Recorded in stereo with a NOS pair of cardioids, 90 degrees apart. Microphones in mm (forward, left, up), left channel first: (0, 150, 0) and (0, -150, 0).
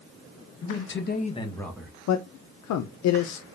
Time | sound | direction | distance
0.6 | a man speaking | 55° left | 1.3 m
2.1 | a man speaking | 60° left | 0.6 m